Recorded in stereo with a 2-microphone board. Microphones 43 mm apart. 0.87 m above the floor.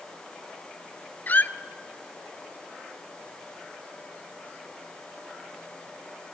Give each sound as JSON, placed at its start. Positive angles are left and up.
{"t": 1.3, "sound": "a squeak", "side_deg": 40, "distance_m": 0.5}